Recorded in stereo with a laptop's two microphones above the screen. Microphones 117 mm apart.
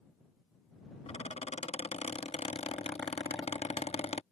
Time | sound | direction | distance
1.1 | a squeak | 60° left (ahead or behind) | ?